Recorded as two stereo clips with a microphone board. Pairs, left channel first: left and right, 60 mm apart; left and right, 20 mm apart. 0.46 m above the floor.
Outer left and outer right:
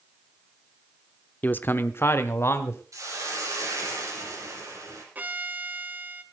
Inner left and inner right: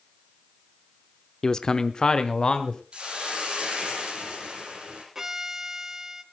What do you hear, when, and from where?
1.4 s a man speaking: 30° left (ahead or behind), 0.7 m; by 2.8 s 45° left (ahead or behind), 1.5 m
2.9 s a hiss: 65° right (ahead or behind), 6.5 m
5.2 s a violin: 30° right (ahead or behind), 1.3 m